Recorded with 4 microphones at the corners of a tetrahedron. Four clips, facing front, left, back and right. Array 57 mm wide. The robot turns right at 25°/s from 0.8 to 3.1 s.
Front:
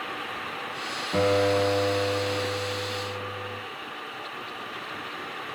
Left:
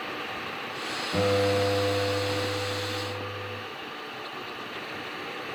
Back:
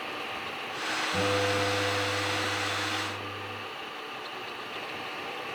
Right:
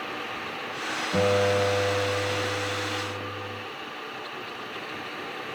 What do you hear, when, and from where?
1.1 s a guitar: 30° right, 5.5 m; by 3.6 s 20° left, 5.5 m